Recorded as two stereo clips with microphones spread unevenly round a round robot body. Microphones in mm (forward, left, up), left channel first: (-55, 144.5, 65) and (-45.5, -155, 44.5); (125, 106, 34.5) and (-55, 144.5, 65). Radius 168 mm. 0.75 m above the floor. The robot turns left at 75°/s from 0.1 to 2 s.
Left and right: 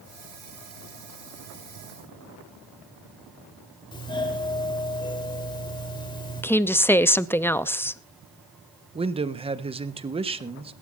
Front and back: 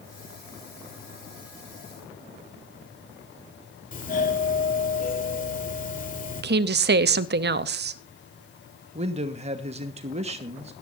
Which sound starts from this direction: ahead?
A doorbell, at 3.9 s.